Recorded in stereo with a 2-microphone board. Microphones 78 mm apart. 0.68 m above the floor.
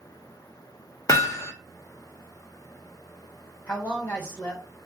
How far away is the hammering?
About 0.7 m.